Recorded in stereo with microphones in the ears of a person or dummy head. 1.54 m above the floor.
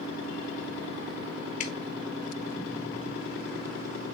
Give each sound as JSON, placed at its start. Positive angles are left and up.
{"t": 1.6, "sound": "dripping", "side_deg": 40, "distance_m": 0.9}